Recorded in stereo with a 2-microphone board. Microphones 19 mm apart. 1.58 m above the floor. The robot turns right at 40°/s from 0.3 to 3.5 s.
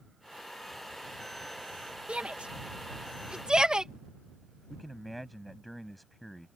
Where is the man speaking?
5° left (ahead or behind).